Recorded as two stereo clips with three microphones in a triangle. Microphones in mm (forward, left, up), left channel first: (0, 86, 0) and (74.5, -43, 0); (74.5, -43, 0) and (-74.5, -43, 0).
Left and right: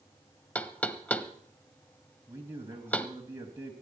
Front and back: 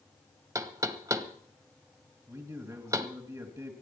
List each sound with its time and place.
0.6 s knocking: straight behind, 0.8 m
2.3 s a man speaking: 125° right, 1.8 m